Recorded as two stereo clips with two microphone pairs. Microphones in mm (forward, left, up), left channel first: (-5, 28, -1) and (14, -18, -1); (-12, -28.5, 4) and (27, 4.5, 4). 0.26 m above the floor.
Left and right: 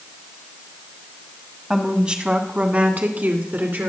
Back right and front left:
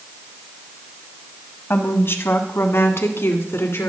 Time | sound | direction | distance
1.7 | a woman speaking | 145° right | 1.4 m